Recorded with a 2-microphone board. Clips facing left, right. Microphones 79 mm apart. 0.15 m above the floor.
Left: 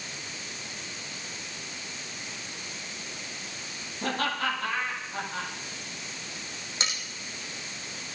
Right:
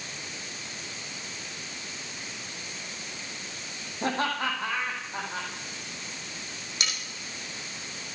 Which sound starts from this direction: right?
Laughter, at 4.0 s.